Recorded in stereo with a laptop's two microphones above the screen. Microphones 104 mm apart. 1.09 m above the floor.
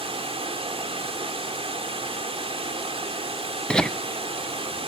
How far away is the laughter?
About 0.6 m.